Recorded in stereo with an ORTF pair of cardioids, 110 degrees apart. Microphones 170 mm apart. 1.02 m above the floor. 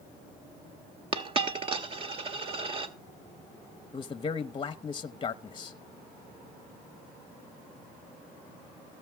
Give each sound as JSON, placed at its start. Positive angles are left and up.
{"t": 1.1, "sound": "a dropped coin", "azimuth_deg": -35, "distance_m": 1.3}
{"t": 3.9, "sound": "a man speaking", "azimuth_deg": 30, "distance_m": 0.8}